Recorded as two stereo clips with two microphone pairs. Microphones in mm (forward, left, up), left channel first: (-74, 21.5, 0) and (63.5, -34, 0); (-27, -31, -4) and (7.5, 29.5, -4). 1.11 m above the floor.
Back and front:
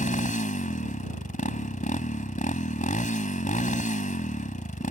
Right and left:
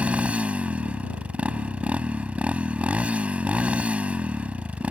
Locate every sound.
0.0 s a motorcycle: 130° left